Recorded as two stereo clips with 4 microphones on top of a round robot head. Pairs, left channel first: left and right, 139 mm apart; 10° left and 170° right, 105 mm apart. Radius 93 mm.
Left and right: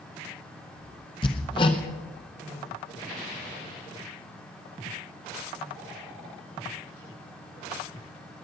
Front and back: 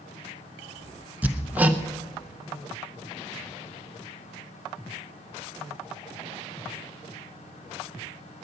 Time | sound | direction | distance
1.2 | hammering | 130° left | 0.7 m